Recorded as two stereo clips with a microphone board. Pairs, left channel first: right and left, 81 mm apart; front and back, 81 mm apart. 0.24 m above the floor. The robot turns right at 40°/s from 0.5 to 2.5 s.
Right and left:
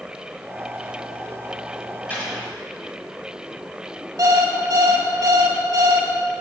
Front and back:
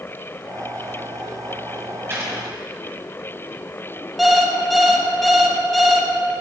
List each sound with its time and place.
2.1 s a gunshot: 145° right, 1.6 m; by 2.3 s 135° right, 1.6 m
4.2 s an alarm clock: 90° left, 0.8 m